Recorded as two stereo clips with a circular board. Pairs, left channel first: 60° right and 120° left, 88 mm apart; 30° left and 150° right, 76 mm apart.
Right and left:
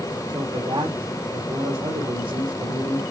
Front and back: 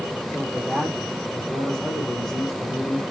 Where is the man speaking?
115° left, 4.5 m.